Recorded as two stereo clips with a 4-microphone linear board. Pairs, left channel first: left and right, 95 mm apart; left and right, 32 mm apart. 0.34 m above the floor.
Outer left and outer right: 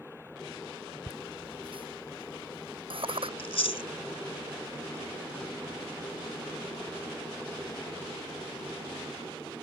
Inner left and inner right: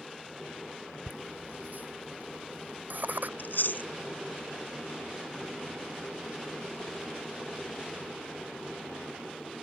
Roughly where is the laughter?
Right.